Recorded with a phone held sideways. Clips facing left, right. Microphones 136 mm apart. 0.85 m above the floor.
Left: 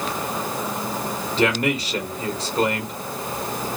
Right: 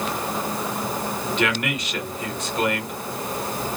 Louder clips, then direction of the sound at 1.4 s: Left 6 dB; 35° left (ahead or behind).